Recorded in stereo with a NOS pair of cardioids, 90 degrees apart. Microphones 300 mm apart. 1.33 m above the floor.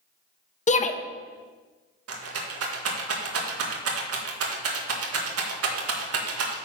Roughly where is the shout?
Ahead left.